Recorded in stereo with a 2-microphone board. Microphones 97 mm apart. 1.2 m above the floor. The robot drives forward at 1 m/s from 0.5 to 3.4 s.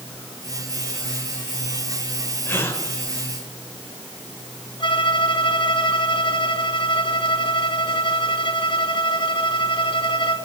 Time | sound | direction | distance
2.5 | a gasp | 20° left (ahead or behind) | 4 m
4.8 | a violin | 55° left (ahead or behind) | 2.5 m